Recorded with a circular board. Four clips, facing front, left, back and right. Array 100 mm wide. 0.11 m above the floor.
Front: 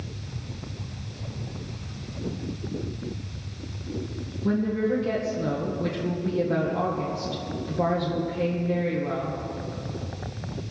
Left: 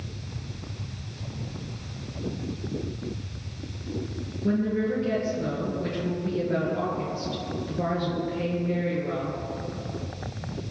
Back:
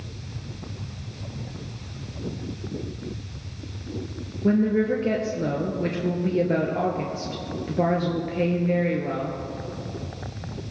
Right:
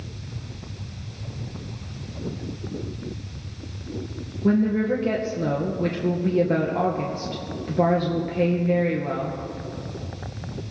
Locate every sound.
4.4 s a woman speaking: 140° right, 2.5 m